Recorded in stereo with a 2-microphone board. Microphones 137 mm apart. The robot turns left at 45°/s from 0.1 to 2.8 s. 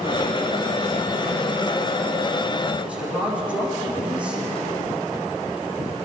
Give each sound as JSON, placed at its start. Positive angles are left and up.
{"t": 2.8, "sound": "a woman speaking", "side_deg": -10, "distance_m": 8.5}